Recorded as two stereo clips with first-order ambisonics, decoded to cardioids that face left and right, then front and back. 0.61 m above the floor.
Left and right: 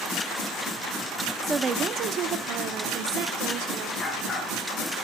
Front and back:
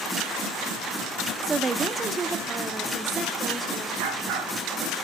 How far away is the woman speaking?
About 0.7 m.